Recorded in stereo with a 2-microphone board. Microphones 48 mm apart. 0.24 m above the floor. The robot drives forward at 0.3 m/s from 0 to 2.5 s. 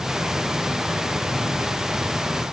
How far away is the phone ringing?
No phone ringing in this recording.